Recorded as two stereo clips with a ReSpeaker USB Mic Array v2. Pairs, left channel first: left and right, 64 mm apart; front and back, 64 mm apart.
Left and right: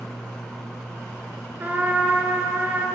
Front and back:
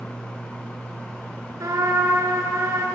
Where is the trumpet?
150° right, 4 m.